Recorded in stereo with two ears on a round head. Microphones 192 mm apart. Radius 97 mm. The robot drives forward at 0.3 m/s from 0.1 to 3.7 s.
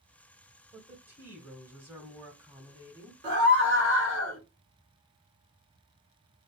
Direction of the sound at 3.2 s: 50° right (ahead or behind).